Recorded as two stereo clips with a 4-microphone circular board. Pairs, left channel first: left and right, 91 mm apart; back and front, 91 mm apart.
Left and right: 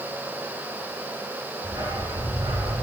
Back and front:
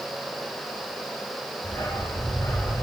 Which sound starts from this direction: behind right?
A dog barking, at 1.6 s.